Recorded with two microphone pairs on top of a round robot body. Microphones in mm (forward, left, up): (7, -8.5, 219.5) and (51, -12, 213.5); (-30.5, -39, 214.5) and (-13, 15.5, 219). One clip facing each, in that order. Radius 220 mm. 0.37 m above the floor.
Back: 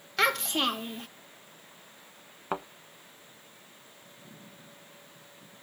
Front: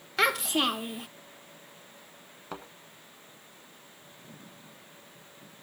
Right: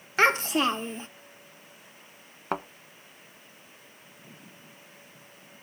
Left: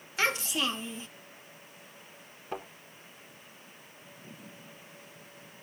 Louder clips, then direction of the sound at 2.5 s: Back 8 dB, right 7 dB; 130° right.